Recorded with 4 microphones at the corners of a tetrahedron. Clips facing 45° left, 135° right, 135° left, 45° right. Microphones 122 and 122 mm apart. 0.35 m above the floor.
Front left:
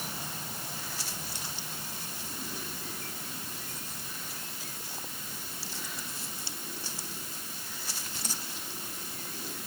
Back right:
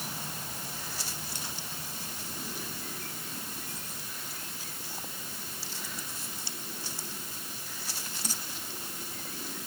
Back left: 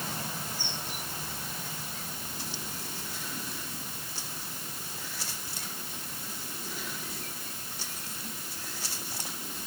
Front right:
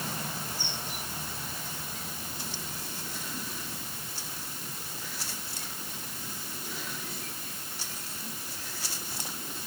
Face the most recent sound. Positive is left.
No sound to turn to.